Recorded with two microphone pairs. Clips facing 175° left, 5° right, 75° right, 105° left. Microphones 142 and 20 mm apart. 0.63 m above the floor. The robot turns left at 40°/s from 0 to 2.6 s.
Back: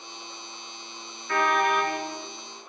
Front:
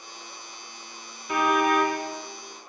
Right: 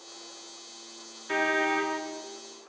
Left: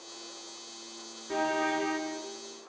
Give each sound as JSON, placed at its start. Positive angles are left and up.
{"t": 1.3, "sound": "a car horn", "azimuth_deg": -75, "distance_m": 5.0}